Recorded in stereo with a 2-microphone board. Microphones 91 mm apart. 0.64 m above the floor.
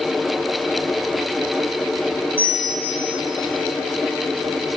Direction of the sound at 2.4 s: 15° right (ahead or behind).